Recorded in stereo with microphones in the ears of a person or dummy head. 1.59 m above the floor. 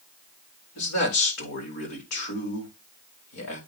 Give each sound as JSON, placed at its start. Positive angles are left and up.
{"t": 0.8, "sound": "a man speaking", "side_deg": 80, "distance_m": 4.5}